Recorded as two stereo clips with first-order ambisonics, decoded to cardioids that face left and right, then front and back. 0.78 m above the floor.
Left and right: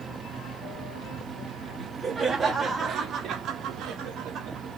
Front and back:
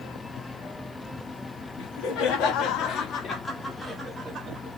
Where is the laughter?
10° right, 1.3 m; by 4.7 s 125° right, 0.9 m.